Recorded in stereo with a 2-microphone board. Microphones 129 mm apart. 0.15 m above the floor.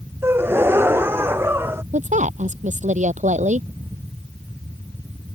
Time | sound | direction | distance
0.2 | a gasp | 20° right (ahead or behind) | ?
1.9 | a woman speaking | 70° right (ahead or behind) | ?